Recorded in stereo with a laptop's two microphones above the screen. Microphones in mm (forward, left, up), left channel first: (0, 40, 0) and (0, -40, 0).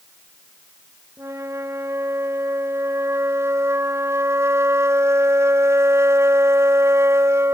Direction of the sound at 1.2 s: 35° right (ahead or behind).